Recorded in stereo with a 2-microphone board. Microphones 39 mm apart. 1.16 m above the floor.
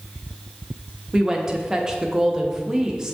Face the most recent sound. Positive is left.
turn(degrees=-15)  # may be behind; listen again after turning